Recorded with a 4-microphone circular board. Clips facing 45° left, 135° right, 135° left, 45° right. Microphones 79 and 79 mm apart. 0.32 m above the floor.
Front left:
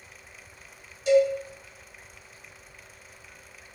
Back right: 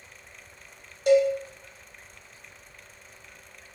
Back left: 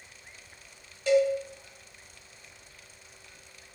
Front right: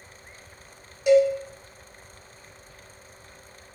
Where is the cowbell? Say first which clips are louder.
Back right 1 dB, front right 5 dB; 120° right, 0.7 m.